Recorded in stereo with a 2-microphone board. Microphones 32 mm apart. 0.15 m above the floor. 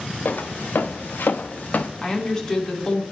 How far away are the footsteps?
About 1.0 m.